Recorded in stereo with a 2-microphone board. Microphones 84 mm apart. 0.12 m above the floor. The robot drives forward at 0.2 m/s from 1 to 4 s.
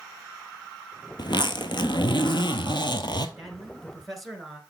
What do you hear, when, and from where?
1.2 s a zipper: 65° left (ahead or behind), 0.7 m
3.4 s a man speaking: centre (ahead or behind), 1.4 m